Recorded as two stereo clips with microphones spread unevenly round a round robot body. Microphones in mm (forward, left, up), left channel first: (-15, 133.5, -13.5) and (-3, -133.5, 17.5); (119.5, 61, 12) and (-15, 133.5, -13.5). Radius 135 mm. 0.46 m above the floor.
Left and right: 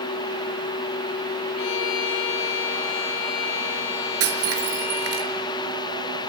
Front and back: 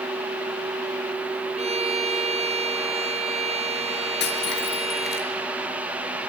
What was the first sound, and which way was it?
A violin, 105° left.